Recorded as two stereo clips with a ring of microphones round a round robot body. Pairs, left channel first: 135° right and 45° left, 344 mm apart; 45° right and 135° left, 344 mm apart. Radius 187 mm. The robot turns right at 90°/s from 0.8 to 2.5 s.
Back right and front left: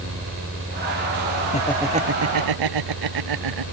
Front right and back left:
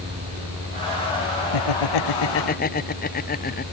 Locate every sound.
1.5 s laughter: 65° right; by 3.6 s 20° left